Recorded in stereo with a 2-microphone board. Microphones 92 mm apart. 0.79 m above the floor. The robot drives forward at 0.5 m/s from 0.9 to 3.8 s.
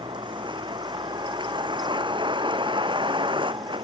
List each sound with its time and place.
0.0 s a vehicle: 60° right (ahead or behind); by 3.9 s 65° right (ahead or behind)